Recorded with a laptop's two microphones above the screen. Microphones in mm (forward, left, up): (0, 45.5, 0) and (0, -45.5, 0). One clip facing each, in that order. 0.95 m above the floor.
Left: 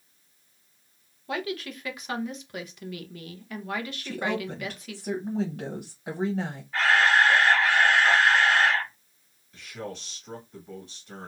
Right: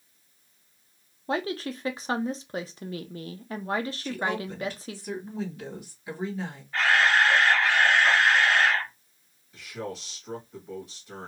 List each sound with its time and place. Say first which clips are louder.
1.3 s a woman speaking: right 3 dB; 30° right (ahead or behind), 0.6 m
4.0 s a woman speaking: even; 60° left (ahead or behind), 0.7 m
6.7 s a camera shutter: left 1 dB; centre (ahead or behind), 0.9 m
9.5 s a man speaking: right 2 dB; 5° right (ahead or behind), 1.5 m